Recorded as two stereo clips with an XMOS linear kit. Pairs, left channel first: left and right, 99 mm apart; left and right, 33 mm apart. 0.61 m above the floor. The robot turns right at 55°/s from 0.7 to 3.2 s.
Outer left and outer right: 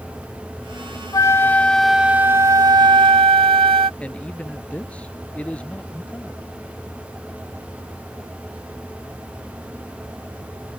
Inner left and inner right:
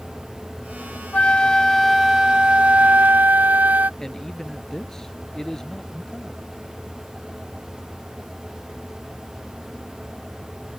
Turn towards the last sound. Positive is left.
turn(degrees=15)  # may be behind; listen again after turning